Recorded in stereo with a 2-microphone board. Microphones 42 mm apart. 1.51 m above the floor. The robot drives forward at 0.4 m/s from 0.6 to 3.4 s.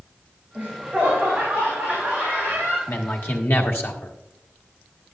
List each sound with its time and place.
0.6 s laughter: 35° right (ahead or behind), 2.5 m; by 2.8 s 25° right (ahead or behind), 3.5 m
2.9 s a man speaking: 65° left (ahead or behind), 1.2 m; by 4.1 s 55° left (ahead or behind), 1.3 m